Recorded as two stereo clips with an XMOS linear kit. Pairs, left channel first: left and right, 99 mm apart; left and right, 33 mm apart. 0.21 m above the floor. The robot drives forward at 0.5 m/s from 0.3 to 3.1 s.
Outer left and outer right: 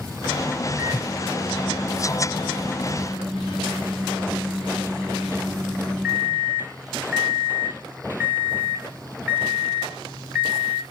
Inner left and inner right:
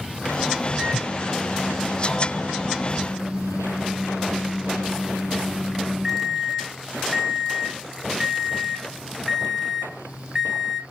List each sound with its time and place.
0.8 s a microwave: 10° right (ahead or behind), 2 m